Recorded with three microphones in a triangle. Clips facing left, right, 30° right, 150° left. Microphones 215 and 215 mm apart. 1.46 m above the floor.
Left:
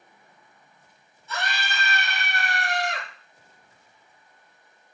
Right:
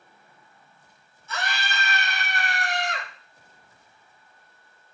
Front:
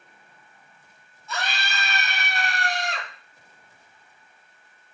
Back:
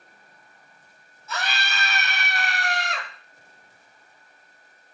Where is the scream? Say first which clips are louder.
Even, even; 60° left, 1.2 m.